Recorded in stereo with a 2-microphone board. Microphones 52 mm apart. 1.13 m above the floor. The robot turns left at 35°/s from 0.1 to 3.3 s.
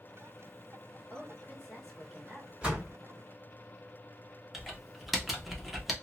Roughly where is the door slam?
Right.